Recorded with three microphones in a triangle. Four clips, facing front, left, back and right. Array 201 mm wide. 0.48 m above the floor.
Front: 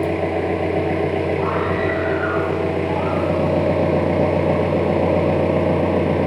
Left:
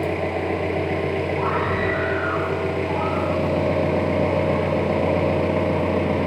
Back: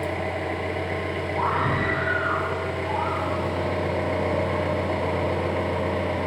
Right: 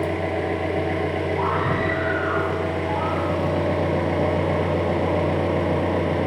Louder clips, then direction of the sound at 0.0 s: Even, front 8 dB; 10° left.